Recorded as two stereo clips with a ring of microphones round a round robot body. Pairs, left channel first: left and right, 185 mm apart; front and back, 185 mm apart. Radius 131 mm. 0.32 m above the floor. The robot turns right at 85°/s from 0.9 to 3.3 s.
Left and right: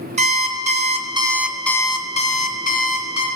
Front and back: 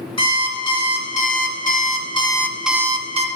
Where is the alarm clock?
55° right, 0.6 m; by 3.3 s 145° left, 0.6 m.